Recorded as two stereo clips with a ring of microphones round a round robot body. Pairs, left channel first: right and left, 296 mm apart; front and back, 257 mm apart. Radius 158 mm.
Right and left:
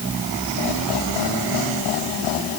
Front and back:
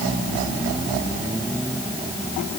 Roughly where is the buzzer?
I don't hear a buzzer.